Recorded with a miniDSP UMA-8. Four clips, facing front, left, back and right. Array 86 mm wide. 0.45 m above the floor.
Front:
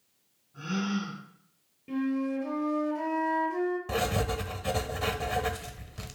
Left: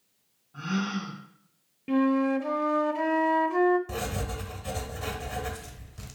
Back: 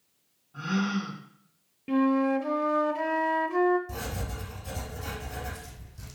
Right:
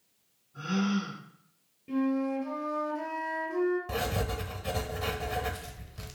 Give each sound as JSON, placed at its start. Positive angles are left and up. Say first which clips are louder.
{"t": 0.5, "sound": "a gasp", "louder": "right 1 dB, back 3 dB", "azimuth_deg": 135, "distance_m": 4.0}
{"t": 1.9, "sound": "a flute", "louder": "left 5 dB, back 6 dB", "azimuth_deg": 125, "distance_m": 0.6}
{"t": 3.9, "sound": "writing", "louder": "right 1 dB, front 8 dB", "azimuth_deg": -10, "distance_m": 1.0}